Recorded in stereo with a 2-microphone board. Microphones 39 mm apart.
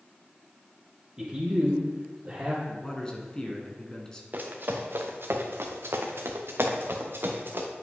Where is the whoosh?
I don't hear a whoosh.